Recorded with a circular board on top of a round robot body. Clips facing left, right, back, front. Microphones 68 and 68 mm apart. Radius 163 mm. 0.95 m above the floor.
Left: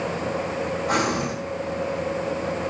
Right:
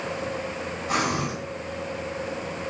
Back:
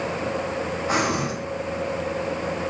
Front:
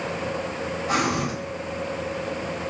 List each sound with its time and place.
0.9 s breathing: 115° left, 4 m